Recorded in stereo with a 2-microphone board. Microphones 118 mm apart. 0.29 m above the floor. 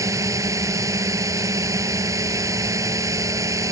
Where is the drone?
25° right (ahead or behind).